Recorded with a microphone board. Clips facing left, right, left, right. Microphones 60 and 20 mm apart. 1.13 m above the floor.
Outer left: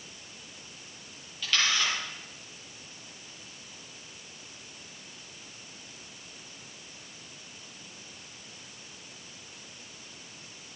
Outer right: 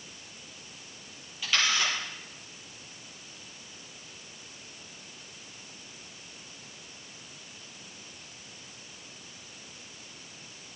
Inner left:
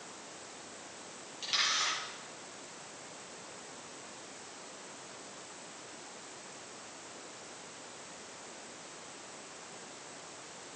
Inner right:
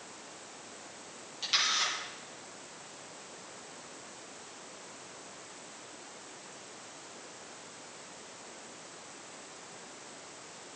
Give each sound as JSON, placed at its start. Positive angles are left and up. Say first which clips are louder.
{"t": 1.4, "sound": "a camera shutter", "louder": "even, inner right 2 dB", "side_deg": -15, "distance_m": 7.5}